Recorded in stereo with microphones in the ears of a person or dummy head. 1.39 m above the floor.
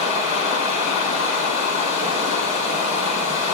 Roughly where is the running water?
Left.